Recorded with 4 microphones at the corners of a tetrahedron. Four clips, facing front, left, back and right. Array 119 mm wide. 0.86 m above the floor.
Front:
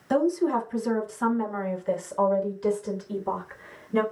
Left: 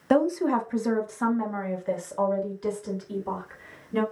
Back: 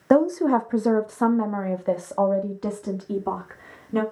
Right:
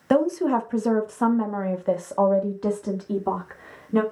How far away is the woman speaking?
About 1.1 m.